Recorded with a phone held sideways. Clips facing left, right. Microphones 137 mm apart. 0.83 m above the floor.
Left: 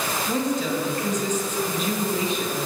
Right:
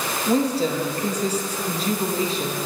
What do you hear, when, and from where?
0.3 s a woman speaking: 35° right (ahead or behind), 0.9 m